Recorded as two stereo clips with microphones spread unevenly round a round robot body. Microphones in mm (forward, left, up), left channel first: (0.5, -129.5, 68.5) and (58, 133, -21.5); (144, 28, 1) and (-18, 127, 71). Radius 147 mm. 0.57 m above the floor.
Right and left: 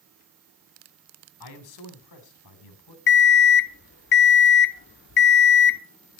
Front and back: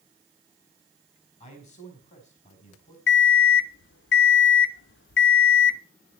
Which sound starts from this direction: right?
A man speaking, at 1.4 s.